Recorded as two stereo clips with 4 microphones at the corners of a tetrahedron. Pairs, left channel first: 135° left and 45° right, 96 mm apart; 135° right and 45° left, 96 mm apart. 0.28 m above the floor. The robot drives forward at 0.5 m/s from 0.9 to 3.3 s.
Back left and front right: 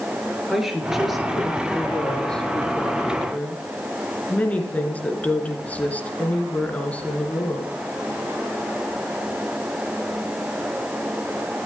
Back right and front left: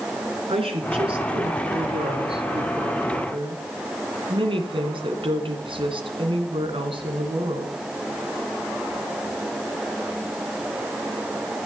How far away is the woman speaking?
About 3.5 m.